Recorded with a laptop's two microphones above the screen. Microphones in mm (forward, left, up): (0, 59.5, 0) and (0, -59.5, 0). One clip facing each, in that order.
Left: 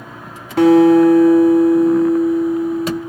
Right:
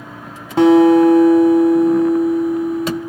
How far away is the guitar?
About 1.2 m.